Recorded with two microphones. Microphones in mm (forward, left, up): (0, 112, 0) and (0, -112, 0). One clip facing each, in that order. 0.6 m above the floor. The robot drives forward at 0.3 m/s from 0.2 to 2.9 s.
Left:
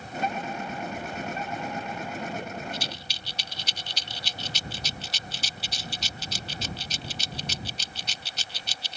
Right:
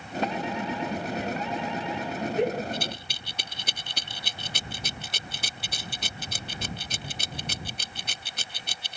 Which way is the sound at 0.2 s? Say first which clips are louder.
Right 3 dB; 75° right (ahead or behind).